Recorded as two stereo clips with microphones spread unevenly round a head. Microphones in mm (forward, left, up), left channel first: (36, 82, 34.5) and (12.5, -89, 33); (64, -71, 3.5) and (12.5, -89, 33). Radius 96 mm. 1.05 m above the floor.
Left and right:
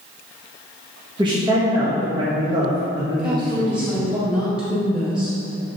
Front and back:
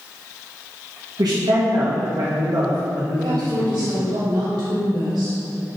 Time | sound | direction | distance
1.2 | a man speaking | 165° right | 1.1 m
3.2 | a woman speaking | 175° left | 2 m